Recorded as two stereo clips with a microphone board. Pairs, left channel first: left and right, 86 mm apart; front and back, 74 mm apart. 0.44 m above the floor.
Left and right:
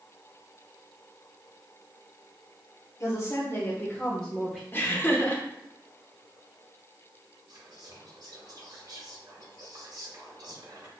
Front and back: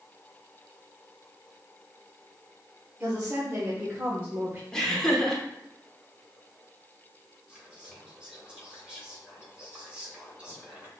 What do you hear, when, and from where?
3.0 s a woman speaking: 120° left, 1.2 m; by 4.6 s 165° right, 0.8 m
4.7 s laughter: 70° left, 0.8 m
7.5 s whispering: 105° right, 1.9 m